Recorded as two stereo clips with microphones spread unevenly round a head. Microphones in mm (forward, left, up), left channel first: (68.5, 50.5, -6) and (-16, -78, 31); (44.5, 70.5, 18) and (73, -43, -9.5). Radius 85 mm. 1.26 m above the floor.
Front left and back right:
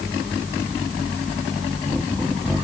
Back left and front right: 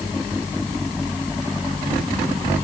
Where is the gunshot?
I don't hear a gunshot.